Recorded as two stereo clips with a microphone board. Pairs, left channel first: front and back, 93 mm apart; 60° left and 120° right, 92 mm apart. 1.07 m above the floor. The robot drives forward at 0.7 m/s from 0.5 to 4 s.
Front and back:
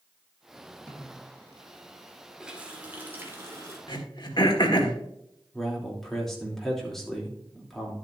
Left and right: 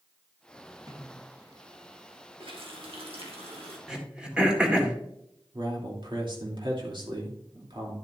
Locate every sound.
0.9 s a snare drum: 80° right, 3.5 m; by 1.3 s 85° right, 3 m
2.4 s a running tap: 100° right, 1.9 m; by 3.8 s 125° right, 2.5 m
3.9 s throat clearing: 40° right, 1.7 m
5.5 s a man speaking: 85° right, 3 m